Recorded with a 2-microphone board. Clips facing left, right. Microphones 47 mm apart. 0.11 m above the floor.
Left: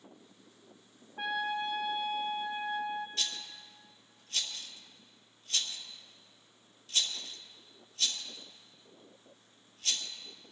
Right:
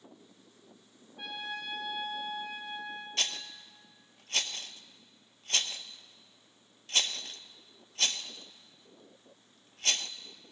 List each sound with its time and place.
1.2 s a trumpet: 55° left (ahead or behind), 1.7 m
3.2 s a rattle: 50° right (ahead or behind), 0.6 m